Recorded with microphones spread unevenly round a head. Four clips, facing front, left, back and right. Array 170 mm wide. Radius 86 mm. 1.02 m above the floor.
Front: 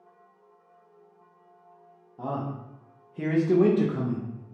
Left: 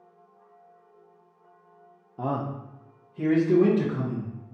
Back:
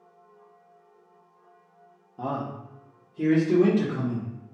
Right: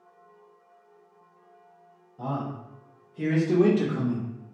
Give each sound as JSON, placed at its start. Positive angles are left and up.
{"t": 2.2, "sound": "a man speaking", "azimuth_deg": 120, "distance_m": 0.6}